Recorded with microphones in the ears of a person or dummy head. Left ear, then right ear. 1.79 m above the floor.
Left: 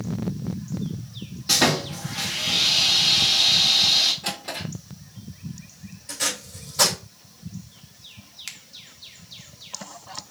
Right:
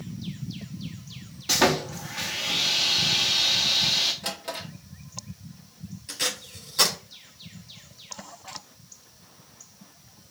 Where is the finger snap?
60° left (ahead or behind), 0.5 m.